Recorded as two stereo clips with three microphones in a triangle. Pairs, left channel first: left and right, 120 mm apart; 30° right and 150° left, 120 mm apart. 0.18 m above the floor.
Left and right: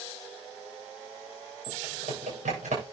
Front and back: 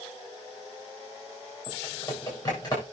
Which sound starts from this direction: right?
Typing on a keyboard, at 1.7 s.